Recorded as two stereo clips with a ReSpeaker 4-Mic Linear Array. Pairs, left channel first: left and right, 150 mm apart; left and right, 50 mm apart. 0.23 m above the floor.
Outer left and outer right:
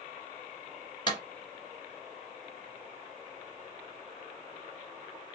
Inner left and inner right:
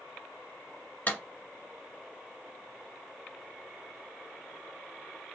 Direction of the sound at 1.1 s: 30° left (ahead or behind).